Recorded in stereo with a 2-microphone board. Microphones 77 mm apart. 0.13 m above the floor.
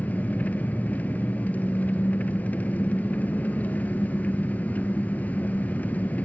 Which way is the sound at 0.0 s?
20° left (ahead or behind).